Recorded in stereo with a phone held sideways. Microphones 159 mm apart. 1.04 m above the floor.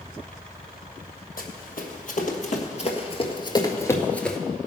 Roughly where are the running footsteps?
Left.